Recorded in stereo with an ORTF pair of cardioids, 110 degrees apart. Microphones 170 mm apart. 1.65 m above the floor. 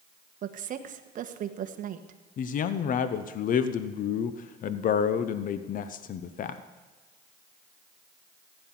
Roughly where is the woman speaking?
Ahead right.